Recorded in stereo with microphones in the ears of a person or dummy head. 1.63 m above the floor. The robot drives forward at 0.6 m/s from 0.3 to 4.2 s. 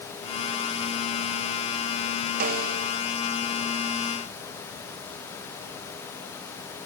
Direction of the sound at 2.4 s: 55° right (ahead or behind).